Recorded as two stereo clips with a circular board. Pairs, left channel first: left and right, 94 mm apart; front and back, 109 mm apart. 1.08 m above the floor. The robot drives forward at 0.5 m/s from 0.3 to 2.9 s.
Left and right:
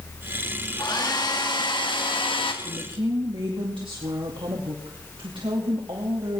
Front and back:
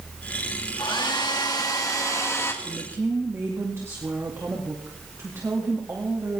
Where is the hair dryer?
45° left, 2 m; by 2.5 s 70° left, 1.7 m.